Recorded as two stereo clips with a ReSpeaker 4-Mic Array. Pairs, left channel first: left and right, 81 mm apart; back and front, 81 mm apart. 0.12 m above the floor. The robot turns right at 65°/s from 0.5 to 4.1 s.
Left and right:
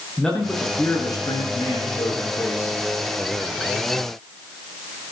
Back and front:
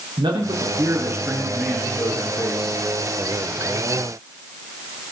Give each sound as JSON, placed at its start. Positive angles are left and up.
{"t": 0.2, "sound": "a man speaking", "azimuth_deg": 10, "distance_m": 5.5}